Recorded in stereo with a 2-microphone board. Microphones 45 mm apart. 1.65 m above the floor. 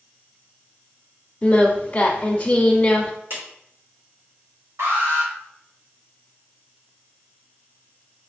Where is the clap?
55° right (ahead or behind), 2 m.